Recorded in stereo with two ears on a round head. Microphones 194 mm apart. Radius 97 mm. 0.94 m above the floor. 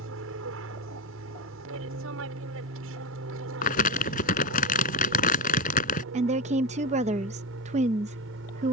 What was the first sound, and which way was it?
An aircraft, 65° right (ahead or behind).